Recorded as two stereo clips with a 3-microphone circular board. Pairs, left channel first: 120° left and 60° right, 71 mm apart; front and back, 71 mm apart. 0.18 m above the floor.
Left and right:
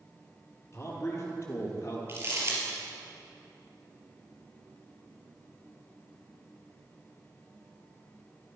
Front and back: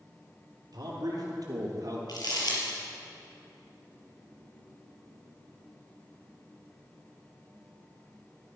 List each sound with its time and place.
0.7 s a man speaking: 170° left, 3.5 m
2.1 s crumpling: 10° right, 4 m